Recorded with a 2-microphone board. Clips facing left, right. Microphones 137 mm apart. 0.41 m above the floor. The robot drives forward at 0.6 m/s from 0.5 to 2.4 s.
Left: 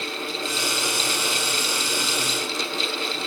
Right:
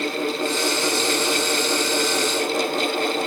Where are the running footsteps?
No running footsteps in this recording.